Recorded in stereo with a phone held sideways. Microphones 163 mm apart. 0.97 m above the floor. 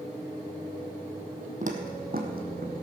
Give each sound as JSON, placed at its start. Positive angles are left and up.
{"t": 1.6, "sound": "footsteps", "side_deg": -55, "distance_m": 1.7}